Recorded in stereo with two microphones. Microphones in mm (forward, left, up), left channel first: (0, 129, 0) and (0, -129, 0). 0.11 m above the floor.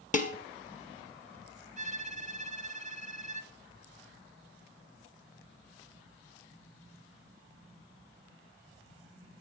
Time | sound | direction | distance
0.1 | dishes clattering | 30° left (ahead or behind) | 1.6 m
1.8 | a violin | 30° right (ahead or behind) | 0.7 m